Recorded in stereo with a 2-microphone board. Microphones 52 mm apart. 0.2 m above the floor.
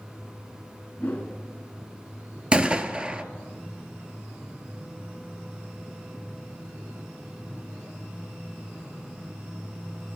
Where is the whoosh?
30° left (ahead or behind), 1.4 m.